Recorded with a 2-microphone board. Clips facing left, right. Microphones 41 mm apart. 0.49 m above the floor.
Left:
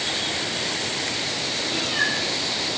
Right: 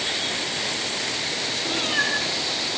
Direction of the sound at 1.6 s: 40° right (ahead or behind).